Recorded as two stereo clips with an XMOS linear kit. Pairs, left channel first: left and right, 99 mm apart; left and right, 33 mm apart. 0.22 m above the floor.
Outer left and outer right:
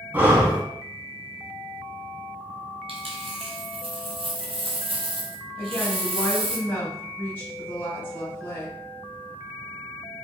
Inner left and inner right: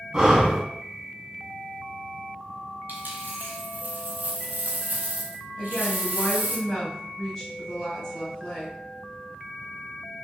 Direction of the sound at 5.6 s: 20° left (ahead or behind).